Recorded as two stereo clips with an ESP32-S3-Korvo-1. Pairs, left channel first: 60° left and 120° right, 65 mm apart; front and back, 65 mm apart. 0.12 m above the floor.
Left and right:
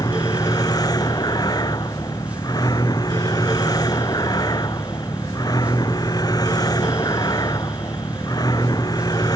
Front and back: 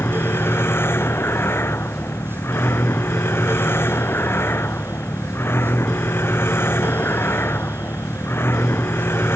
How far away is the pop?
I don't hear a pop.